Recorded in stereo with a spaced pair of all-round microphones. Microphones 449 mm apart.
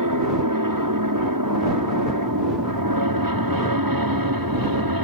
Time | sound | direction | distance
0.0 | an aircraft | 45° right (ahead or behind) | ?